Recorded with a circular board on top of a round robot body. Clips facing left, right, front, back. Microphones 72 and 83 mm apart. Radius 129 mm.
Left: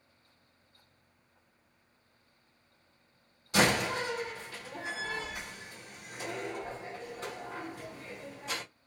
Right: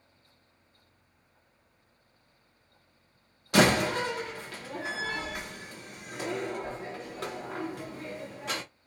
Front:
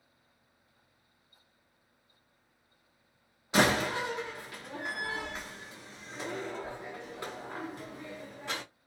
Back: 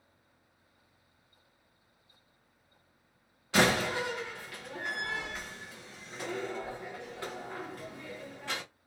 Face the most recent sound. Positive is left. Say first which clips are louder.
# right 4 dB, even
turn(degrees=-70)